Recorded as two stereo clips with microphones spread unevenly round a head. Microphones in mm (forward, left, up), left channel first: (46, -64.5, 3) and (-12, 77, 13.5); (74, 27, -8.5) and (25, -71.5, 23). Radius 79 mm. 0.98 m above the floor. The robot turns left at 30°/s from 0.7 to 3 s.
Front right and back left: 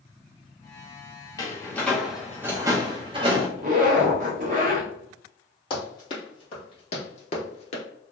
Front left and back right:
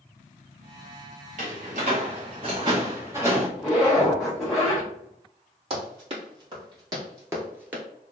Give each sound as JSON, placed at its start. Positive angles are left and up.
{"t": 1.4, "sound": "a door slam", "azimuth_deg": -140, "distance_m": 0.7}
{"t": 3.6, "sound": "a zipper", "azimuth_deg": 155, "distance_m": 0.8}
{"t": 5.7, "sound": "running footsteps", "azimuth_deg": -130, "distance_m": 1.9}